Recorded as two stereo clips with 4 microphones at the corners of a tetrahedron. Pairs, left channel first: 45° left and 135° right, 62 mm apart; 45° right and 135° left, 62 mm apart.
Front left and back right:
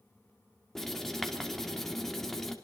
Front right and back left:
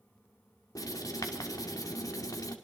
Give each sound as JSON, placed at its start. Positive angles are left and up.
{"t": 0.8, "sound": "writing", "azimuth_deg": -40, "distance_m": 2.0}